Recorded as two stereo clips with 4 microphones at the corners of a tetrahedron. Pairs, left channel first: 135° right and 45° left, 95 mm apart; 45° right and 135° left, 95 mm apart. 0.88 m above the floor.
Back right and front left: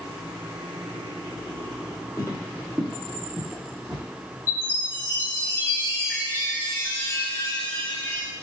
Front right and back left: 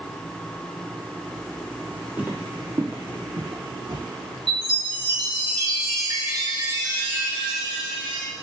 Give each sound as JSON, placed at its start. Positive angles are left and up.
{"t": 2.2, "sound": "footsteps", "azimuth_deg": -155, "distance_m": 1.0}
{"t": 4.5, "sound": "a chime", "azimuth_deg": 160, "distance_m": 2.0}